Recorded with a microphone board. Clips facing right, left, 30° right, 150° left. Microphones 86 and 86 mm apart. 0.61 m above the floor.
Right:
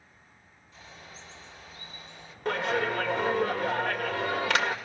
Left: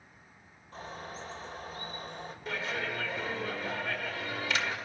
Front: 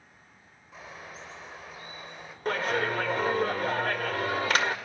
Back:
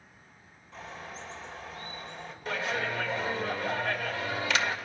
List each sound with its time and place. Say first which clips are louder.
0.7 s a bird: left 8 dB, back 2 dB; 50° left, 3 m
2.5 s a clap: right 8 dB, front 4 dB; 70° right, 1.8 m